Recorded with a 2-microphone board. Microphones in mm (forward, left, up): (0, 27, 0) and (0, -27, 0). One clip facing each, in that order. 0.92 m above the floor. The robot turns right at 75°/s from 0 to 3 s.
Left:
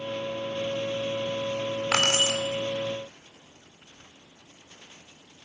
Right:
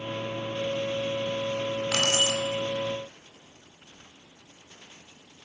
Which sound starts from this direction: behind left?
Keys jangling, at 1.9 s.